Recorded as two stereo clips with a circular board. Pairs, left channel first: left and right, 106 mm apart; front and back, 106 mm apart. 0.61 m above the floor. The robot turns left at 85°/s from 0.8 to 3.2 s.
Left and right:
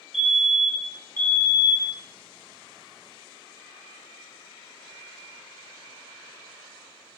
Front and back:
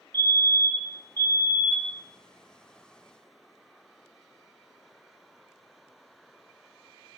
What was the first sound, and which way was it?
A fire alarm, 175° right.